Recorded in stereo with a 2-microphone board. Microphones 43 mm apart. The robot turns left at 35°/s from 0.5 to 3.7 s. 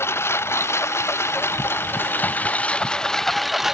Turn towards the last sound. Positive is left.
turn(degrees=-5)